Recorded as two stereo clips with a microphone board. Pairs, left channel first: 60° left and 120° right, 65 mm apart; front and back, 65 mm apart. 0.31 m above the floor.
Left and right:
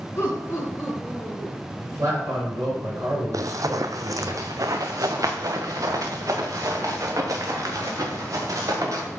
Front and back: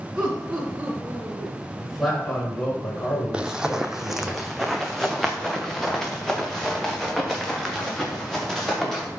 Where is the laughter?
105° left, 2.5 m; by 1.6 s 125° left, 4 m.